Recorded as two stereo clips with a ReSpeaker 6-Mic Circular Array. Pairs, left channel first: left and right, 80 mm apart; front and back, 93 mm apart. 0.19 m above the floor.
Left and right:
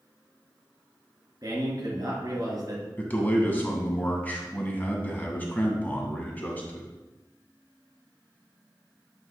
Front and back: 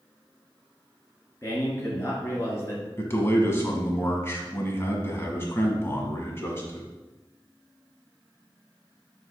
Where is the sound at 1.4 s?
60° right, 2.5 m.